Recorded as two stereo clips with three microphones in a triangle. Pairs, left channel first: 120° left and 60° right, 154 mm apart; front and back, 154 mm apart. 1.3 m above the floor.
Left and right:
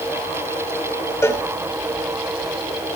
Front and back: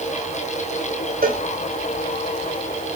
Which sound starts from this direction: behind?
A cowbell, at 1.2 s.